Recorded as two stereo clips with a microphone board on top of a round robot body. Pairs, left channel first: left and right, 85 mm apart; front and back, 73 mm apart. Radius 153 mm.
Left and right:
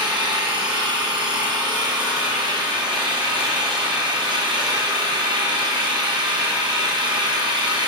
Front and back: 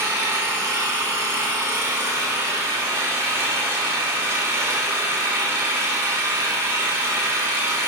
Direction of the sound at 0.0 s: 125° right.